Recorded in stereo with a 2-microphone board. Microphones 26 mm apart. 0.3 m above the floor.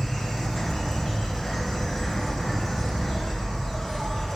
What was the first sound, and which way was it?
An insect, 10° left (ahead or behind).